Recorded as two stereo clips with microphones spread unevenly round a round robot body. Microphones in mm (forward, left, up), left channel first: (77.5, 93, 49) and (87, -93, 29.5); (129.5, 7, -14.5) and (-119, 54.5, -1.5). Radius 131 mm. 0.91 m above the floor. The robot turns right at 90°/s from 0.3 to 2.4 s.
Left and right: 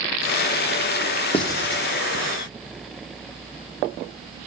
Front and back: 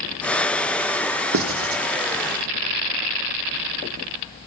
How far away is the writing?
About 0.9 m.